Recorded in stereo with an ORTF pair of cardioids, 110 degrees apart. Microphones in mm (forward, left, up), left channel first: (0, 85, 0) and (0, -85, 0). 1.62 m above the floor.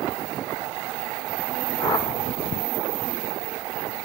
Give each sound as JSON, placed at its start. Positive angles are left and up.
{"t": 1.8, "sound": "a whoosh", "azimuth_deg": 20, "distance_m": 1.8}